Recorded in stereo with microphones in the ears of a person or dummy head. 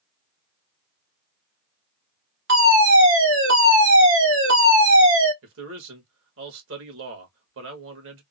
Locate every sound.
2.5 s a fire alarm: 60° right (ahead or behind), 2 m
5.4 s a man speaking: 70° right (ahead or behind), 1.7 m